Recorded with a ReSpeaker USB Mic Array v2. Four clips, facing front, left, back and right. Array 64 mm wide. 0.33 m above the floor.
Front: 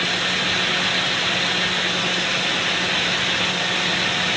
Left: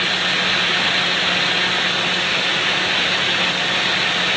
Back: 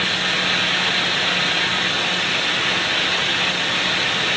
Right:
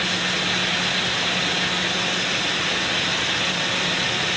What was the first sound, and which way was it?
Only background noise.